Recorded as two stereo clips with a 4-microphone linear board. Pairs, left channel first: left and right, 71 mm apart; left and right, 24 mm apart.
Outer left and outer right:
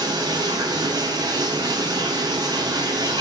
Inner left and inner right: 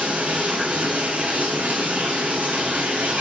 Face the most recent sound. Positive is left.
turn(degrees=-80)